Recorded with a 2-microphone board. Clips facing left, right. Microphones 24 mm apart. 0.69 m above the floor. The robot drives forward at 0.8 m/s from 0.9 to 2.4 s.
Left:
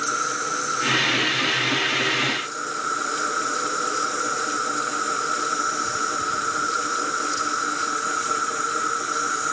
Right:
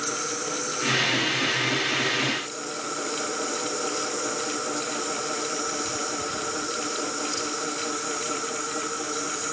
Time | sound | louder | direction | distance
0.0 | an insect | left 5 dB | 30° left (ahead or behind) | ?